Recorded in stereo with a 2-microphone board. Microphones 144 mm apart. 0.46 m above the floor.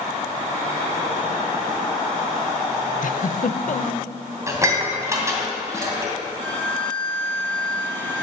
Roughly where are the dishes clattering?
Right.